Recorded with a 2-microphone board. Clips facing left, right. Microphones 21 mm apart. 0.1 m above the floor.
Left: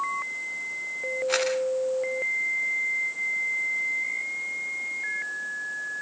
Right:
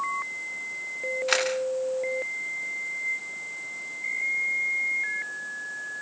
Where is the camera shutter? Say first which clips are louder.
Right 1 dB; 75° right (ahead or behind), 6.5 m.